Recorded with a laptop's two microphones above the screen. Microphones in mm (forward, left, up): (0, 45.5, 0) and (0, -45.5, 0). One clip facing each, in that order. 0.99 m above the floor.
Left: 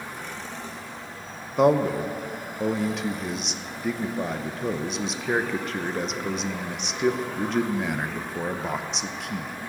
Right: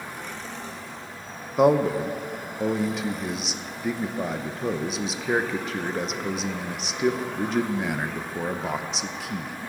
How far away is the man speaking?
About 0.5 m.